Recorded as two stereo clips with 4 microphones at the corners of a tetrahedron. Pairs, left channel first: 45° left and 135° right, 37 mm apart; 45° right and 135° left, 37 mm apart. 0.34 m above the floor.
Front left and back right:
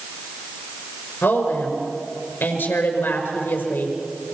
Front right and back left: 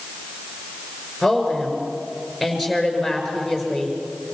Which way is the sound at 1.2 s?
45° left.